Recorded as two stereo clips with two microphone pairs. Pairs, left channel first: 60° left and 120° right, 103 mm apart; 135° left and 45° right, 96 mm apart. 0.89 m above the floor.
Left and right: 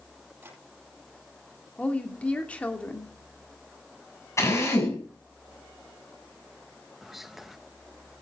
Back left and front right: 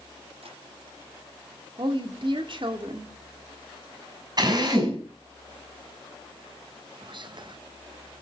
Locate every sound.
0.4 s tapping: 45° right, 9.5 m
1.8 s a woman speaking: 15° right, 2 m
4.4 s a drill: straight ahead, 6 m
7.0 s whispering: 35° right, 0.6 m